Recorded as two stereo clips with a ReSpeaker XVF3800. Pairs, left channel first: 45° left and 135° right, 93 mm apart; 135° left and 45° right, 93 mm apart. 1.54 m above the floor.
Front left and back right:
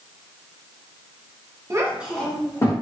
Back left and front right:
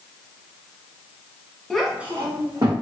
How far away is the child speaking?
About 0.8 m.